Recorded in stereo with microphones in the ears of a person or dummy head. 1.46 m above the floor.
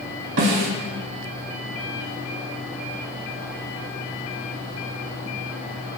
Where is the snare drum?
70° right (ahead or behind), 3 m.